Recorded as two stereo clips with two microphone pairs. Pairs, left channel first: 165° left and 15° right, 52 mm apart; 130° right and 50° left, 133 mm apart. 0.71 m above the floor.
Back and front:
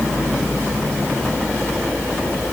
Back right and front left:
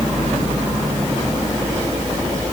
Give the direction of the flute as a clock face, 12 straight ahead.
I don't hear a flute.